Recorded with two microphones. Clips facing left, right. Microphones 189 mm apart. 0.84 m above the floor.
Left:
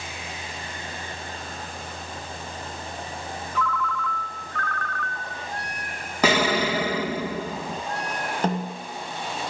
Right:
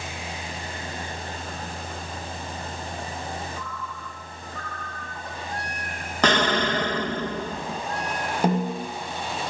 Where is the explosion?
5° left (ahead or behind), 0.6 m.